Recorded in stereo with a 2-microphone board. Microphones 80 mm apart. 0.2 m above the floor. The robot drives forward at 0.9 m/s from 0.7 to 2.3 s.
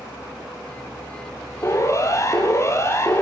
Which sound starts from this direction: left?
A siren, at 1.6 s.